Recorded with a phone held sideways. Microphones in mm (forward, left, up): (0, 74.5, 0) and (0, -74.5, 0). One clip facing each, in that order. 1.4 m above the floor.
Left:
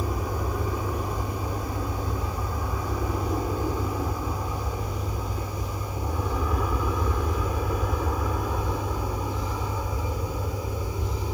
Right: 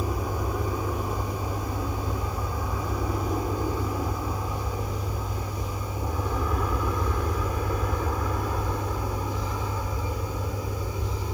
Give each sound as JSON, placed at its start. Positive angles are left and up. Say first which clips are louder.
{"t": 0.0, "sound": "an aircraft", "louder": "even", "side_deg": -5}